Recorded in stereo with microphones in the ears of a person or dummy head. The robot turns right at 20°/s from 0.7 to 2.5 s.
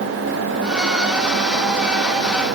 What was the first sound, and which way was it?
Only background noise.